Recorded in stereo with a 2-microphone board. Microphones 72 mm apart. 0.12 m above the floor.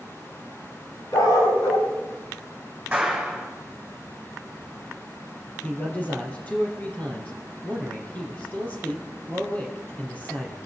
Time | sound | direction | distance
1.1 | a dog barking | 70° left (ahead or behind) | 7 m
2.9 | a clap | 15° right (ahead or behind) | 6.5 m
5.6 | a man speaking | 20° left (ahead or behind) | 3.5 m